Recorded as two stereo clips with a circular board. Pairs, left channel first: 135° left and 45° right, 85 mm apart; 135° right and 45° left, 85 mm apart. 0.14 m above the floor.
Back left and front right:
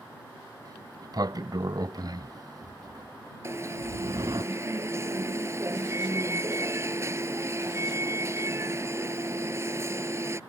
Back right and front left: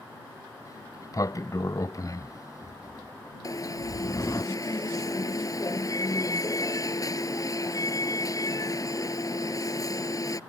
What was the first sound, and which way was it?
A sliding door, 85° right.